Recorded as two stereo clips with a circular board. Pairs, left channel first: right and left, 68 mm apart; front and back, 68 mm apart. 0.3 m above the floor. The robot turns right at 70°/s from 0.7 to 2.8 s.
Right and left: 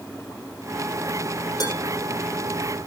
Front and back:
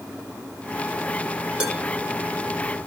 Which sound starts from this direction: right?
Dishes clattering, at 1.6 s.